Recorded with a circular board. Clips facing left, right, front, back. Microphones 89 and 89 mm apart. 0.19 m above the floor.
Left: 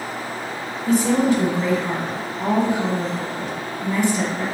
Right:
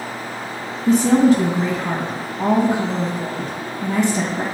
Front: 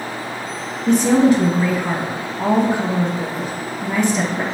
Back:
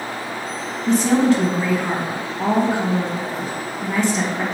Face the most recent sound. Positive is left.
turn(degrees=-85)